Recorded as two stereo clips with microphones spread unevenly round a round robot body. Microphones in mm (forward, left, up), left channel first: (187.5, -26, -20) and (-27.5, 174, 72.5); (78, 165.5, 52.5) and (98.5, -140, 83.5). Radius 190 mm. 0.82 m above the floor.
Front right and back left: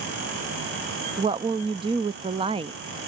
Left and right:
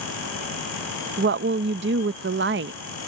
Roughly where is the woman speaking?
Behind right.